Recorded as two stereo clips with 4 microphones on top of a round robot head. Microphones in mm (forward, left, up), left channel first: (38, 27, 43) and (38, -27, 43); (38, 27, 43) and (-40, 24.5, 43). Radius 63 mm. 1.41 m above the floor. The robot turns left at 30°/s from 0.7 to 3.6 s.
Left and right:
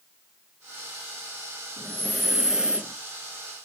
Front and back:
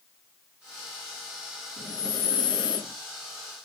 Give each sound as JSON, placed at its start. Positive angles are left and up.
{"t": 1.8, "sound": "breathing", "azimuth_deg": 10, "distance_m": 0.5}